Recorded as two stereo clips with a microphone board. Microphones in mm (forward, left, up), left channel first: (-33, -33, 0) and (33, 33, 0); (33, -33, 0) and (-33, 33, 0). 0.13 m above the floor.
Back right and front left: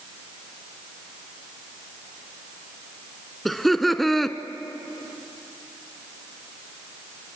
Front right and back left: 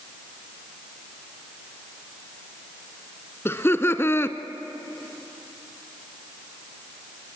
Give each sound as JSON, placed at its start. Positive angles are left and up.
{"t": 3.5, "sound": "laughter", "azimuth_deg": -50, "distance_m": 1.1}